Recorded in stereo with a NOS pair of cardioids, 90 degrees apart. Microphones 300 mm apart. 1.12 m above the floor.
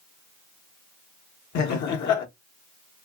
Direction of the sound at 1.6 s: 70° left.